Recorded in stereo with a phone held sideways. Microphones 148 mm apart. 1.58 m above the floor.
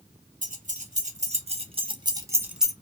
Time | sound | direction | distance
0.4 | keys jangling | 60° right (ahead or behind) | 1.4 m